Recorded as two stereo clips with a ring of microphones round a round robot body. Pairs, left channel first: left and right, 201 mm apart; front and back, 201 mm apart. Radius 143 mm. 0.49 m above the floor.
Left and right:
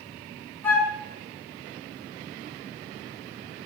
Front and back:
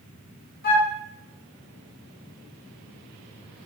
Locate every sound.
0.6 s a flute: 15° left, 0.7 m